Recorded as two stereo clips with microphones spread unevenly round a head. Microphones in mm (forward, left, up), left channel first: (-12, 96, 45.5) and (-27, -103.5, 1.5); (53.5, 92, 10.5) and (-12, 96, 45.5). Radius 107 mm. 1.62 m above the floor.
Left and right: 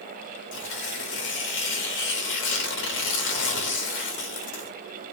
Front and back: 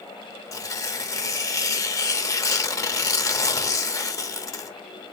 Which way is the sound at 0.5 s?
45° left.